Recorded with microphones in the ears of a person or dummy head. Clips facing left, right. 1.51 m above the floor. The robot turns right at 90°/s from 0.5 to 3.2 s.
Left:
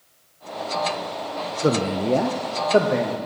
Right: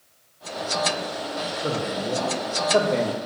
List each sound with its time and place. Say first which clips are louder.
1.6 s a man speaking: left 8 dB; 50° left, 0.8 m; by 3.2 s 175° right, 0.8 m